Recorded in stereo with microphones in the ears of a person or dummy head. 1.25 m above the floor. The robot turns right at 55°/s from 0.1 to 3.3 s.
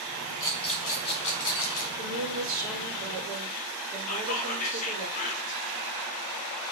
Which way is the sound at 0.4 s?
15° left.